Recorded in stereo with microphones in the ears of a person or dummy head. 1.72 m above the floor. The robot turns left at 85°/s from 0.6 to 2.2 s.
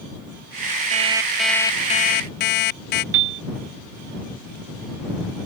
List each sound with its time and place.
0.9 s an alarm clock: 135° right; by 3.0 s 115° left
3.1 s a piano: 65° right (ahead or behind)